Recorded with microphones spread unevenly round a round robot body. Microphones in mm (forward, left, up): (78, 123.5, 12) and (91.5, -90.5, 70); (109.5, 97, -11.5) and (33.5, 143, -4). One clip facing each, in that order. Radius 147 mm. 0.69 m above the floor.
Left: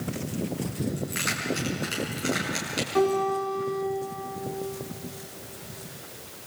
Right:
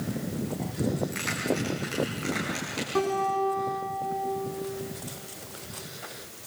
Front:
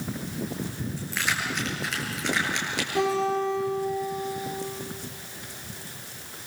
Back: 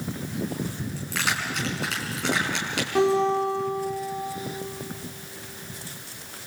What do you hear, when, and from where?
1.0 s keys jangling: 175° left, 5 m
3.0 s a guitar: 150° right, 6.5 m